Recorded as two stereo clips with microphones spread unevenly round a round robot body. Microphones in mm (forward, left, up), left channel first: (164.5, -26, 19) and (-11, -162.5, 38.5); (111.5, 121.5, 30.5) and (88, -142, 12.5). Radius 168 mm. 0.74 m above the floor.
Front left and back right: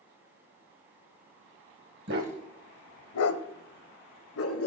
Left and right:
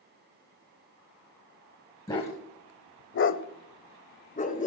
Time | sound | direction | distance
2.1 | a dog barking | 165° left | 1.1 m